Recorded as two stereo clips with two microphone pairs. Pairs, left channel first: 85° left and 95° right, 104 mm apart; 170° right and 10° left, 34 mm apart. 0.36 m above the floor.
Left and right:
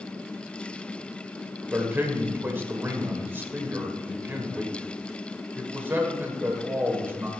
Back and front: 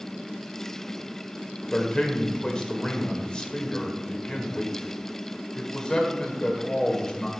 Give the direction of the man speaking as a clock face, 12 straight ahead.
5 o'clock.